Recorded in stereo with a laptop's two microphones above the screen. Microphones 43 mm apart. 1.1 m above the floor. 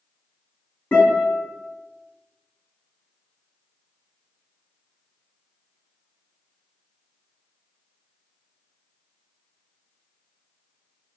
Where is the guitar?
50° left (ahead or behind), 1.4 m.